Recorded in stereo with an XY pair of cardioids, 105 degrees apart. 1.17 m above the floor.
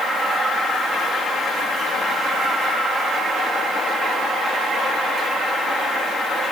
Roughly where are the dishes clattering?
I don't hear dishes clattering.